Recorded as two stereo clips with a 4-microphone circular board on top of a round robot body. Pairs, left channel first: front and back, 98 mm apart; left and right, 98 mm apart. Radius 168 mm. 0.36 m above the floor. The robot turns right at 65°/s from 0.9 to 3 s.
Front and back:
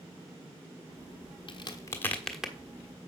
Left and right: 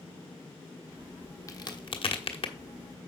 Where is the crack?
35° left, 1.3 m; by 2.5 s 105° left, 1.3 m.